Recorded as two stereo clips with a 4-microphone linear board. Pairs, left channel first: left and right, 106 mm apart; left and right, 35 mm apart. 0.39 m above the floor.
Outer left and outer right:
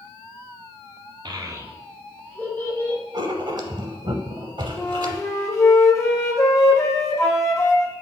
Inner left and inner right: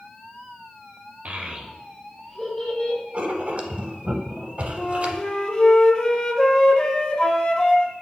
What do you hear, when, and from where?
1.2 s a child speaking: 50° right (ahead or behind), 0.7 m; by 3.0 s 35° left (ahead or behind), 1.0 m
3.1 s writing: 50° right (ahead or behind), 0.5 m
4.8 s a flute: 30° left (ahead or behind), 0.6 m